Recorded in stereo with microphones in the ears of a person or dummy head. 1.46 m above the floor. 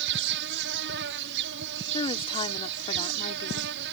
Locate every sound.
0.0 s an insect: 70° right (ahead or behind)
1.9 s a woman speaking: 30° left (ahead or behind)